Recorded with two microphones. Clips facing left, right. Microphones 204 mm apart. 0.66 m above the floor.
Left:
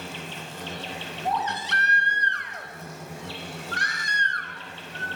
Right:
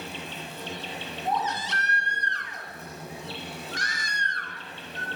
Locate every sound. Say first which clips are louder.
0.0 s an insect: even; 75° left (ahead or behind), 1.2 m
1.2 s a baby crying: left 1 dB; 60° left (ahead or behind), 0.6 m